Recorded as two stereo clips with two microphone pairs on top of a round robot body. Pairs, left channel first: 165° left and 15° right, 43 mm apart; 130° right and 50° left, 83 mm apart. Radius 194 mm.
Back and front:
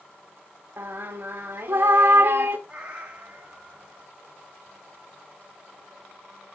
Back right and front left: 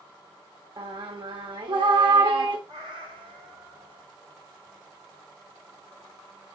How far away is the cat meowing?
About 0.7 m.